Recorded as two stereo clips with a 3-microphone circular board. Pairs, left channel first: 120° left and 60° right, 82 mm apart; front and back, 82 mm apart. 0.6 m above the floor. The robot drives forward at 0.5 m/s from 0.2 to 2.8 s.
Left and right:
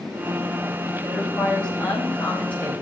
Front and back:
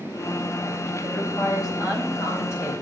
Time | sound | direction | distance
1.0 | a woman speaking | 40° left | 3.5 m